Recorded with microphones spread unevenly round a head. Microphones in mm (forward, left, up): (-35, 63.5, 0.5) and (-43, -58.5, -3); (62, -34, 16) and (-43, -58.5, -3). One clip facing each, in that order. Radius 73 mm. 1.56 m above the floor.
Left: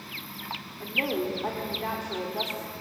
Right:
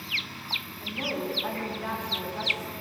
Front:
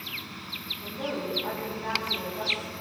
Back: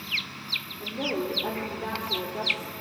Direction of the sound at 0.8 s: 140° left.